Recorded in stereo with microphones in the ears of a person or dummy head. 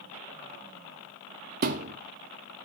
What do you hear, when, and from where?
1.6 s a thud: 50° right (ahead or behind), 1.4 m